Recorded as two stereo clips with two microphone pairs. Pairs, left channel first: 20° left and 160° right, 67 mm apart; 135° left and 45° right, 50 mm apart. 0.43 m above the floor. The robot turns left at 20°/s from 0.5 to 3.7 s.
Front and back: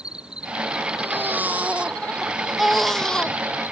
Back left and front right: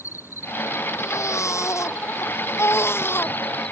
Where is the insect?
125° left; by 3.7 s 60° left.